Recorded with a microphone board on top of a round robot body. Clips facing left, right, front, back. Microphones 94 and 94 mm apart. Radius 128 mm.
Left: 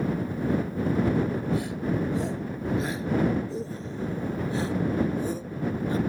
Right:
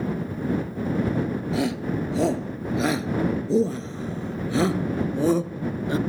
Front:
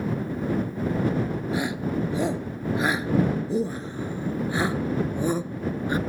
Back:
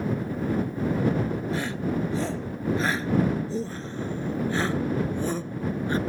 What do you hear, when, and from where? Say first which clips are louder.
1.5 s a shout: right 3 dB, front 1 dB; 75° right